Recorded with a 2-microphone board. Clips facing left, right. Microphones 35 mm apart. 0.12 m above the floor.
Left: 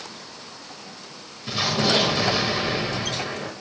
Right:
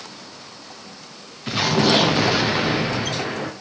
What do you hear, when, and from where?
1.5 s an explosion: 55° right (ahead or behind), 3.5 m